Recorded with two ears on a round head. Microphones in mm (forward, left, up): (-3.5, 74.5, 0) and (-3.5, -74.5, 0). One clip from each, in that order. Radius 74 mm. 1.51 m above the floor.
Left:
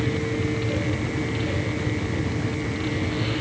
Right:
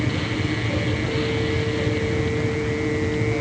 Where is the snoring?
I don't hear snoring.